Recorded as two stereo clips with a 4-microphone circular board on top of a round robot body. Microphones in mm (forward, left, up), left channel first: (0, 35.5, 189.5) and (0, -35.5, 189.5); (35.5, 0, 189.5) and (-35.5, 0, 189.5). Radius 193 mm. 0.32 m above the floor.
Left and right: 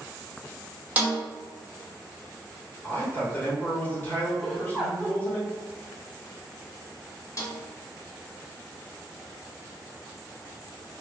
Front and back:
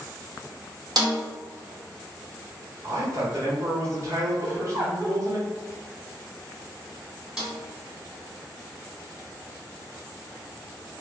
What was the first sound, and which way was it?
A snare drum, 160° right.